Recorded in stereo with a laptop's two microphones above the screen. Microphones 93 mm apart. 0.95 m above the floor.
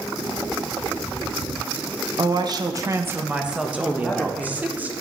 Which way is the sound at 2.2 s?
50° right (ahead or behind).